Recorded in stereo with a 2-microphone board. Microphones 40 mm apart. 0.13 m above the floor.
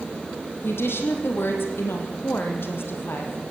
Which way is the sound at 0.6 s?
75° left (ahead or behind).